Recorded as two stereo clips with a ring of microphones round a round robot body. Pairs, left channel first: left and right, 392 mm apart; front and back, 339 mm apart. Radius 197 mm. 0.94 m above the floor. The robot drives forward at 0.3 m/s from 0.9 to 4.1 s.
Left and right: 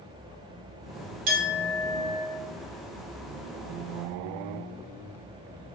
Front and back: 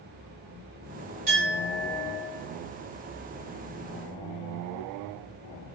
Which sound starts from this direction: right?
A clink, at 1.3 s.